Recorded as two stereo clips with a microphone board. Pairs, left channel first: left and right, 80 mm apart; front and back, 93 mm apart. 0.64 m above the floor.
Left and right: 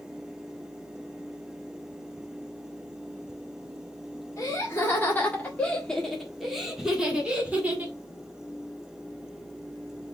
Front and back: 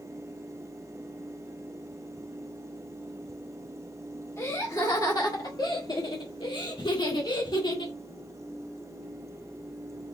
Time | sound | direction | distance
4.4 | laughter | 50° left | 1.5 m